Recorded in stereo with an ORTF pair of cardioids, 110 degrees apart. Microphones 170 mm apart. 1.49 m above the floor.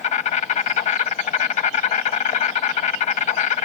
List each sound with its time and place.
0.0 s an insect: 45° left, 0.8 m